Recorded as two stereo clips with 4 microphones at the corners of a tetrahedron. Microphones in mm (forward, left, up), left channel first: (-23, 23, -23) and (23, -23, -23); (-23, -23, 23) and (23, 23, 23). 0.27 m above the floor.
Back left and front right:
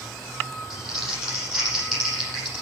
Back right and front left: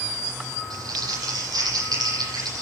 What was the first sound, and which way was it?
Crumpling, 45° left.